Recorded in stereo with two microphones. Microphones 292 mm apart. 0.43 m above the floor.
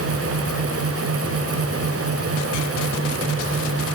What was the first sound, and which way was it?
Only background noise.